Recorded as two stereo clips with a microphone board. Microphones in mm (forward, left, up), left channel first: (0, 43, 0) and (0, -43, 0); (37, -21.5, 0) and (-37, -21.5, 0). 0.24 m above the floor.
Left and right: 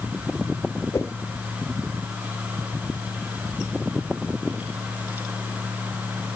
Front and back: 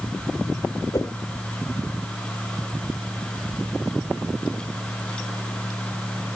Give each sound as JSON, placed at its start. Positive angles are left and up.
{"t": 0.9, "sound": "a whoosh", "azimuth_deg": 30}